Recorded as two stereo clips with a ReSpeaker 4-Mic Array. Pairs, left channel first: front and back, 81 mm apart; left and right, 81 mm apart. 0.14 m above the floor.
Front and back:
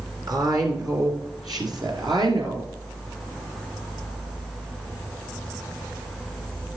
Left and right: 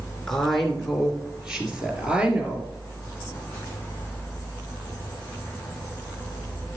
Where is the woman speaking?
170° left, 1.9 m; by 2.7 s 165° right, 3 m.